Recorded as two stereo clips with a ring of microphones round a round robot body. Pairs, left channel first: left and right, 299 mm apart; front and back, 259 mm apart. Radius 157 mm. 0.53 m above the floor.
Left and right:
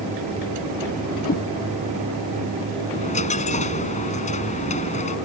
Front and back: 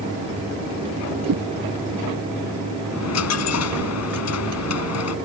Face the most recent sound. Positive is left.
turn(degrees=20)